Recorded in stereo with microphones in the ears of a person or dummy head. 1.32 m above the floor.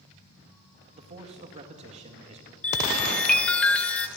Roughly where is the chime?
Centre.